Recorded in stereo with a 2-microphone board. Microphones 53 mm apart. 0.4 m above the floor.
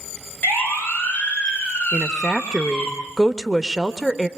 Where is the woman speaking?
5° right (ahead or behind), 1.1 m.